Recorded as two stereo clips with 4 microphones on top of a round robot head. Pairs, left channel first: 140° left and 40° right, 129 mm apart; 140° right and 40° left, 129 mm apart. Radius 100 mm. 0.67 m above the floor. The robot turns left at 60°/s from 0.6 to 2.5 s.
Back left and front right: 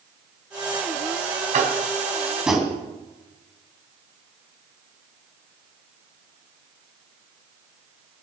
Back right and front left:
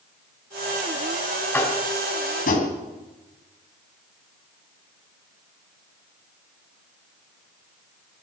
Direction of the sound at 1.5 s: 65° right.